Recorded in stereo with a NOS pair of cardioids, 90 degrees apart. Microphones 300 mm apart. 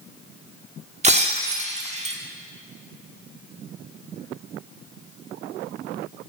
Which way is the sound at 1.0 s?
25° right.